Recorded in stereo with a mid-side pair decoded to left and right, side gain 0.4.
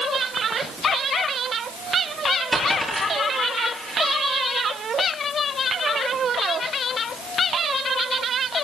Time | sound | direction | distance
2.5 | a dropped coin | 15° right | 8.5 m